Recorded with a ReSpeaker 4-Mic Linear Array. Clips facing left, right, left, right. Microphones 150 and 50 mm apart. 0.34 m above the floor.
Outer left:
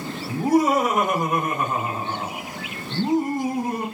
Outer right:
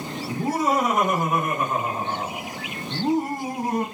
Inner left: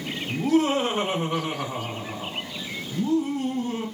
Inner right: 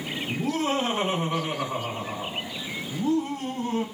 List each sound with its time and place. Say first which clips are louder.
0.3 s laughter: outer left 5 dB, inner left 5 dB; 20° left (ahead or behind), 1.5 m; by 3.9 s 35° right (ahead or behind), 2.5 m